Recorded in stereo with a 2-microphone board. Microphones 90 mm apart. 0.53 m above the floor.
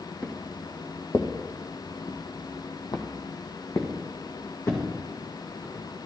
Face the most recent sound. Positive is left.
turn(degrees=30)  # may be behind; listen again after turning